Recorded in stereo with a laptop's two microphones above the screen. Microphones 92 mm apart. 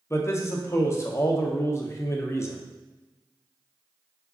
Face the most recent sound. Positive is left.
turn(degrees=30)  # may be behind; listen again after turning